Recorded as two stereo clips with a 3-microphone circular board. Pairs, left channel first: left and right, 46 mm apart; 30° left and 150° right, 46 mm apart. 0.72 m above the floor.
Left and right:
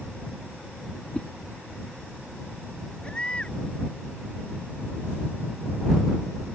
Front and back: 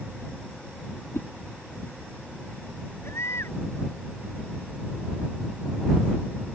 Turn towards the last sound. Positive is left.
turn(degrees=25)